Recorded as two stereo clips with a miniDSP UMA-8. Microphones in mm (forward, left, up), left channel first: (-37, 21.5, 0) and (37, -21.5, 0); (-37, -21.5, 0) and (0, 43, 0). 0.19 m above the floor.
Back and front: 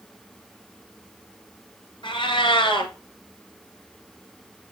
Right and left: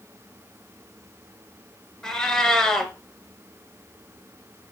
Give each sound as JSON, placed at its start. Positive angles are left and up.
{"t": 2.0, "sound": "a cat meowing", "azimuth_deg": 160, "distance_m": 1.7}